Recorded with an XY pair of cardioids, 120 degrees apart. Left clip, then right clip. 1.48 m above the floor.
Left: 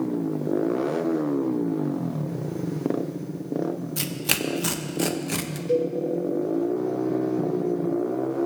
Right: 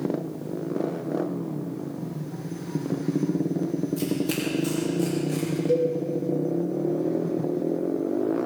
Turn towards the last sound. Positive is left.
turn(degrees=-10)